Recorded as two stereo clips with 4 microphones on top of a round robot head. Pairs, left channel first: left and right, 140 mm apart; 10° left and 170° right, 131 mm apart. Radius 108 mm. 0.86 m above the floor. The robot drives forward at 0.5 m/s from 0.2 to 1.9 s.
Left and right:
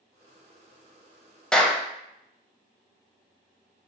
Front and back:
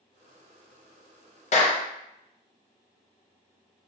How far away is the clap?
About 0.6 m.